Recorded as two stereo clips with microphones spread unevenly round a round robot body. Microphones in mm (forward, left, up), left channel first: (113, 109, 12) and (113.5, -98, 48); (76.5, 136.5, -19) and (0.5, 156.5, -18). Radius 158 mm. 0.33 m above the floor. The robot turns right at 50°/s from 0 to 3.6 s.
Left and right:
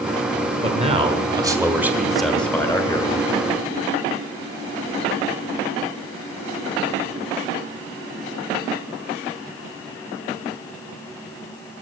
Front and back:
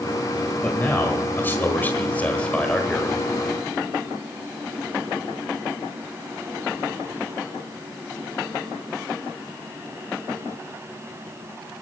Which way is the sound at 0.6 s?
55° right.